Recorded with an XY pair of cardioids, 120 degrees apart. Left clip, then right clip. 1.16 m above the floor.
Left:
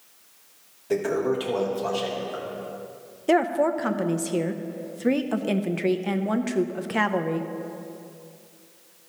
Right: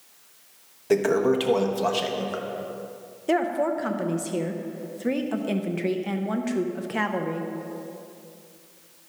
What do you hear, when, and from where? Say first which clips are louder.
0.9 s a toilet flushing: right 3 dB; 35° right, 1.0 m
3.3 s a woman speaking: left 2 dB; 25° left, 0.7 m